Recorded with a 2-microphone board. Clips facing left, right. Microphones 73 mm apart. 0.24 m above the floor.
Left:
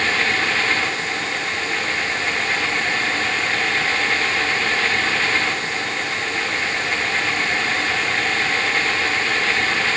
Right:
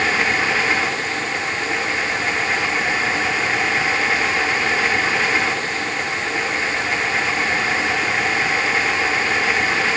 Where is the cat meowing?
No cat meowing in this recording.